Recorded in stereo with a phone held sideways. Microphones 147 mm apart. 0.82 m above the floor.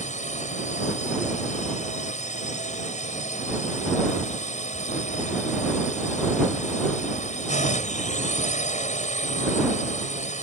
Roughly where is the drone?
Left.